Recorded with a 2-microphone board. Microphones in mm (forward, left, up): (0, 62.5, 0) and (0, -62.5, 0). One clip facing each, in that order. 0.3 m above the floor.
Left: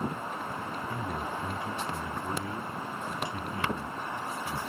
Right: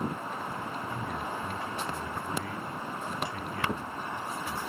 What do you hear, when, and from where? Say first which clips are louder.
0.9 s a man speaking: left 1 dB; 20° left (ahead or behind), 2.5 m